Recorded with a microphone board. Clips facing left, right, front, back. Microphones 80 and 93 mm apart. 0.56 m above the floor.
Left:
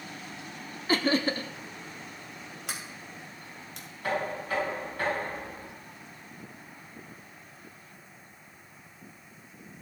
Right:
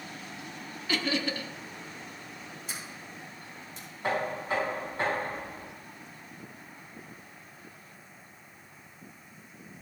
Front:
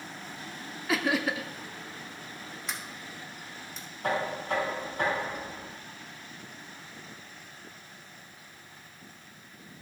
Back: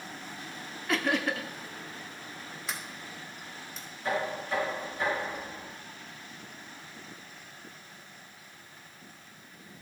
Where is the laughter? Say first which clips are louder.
Left 5 dB, front 1 dB; 85° left, 0.7 m.